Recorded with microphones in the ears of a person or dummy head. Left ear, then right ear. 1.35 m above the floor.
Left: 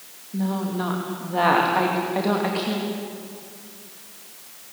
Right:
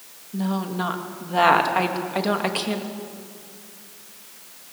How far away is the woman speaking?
About 2.5 m.